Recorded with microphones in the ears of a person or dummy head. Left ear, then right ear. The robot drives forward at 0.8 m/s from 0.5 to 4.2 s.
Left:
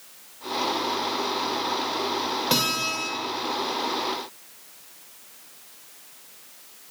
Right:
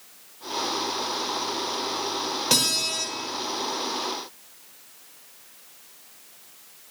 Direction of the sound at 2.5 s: 20° right (ahead or behind).